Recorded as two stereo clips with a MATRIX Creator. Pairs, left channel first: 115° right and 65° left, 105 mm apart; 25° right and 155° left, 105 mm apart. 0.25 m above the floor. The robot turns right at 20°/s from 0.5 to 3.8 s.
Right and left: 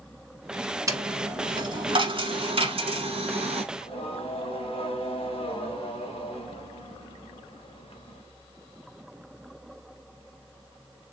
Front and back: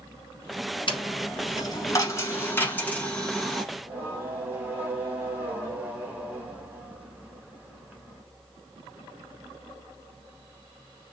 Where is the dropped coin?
10° left, 1.0 m; by 3.6 s 65° left, 1.0 m.